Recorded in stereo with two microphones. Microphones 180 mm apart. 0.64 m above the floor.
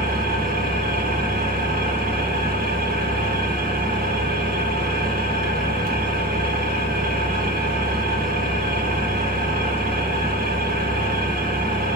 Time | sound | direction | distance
0.0 | an engine running | 55° right (ahead or behind) | 1.3 m